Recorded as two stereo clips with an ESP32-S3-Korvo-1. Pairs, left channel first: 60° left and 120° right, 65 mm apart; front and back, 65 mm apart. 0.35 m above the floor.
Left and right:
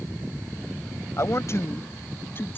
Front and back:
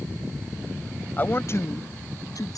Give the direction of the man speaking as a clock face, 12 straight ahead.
10 o'clock.